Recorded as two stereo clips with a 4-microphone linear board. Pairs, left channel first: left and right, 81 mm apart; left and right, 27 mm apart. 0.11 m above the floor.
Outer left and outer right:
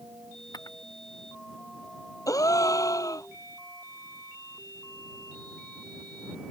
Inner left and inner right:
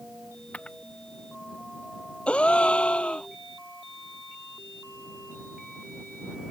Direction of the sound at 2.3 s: 50° left (ahead or behind).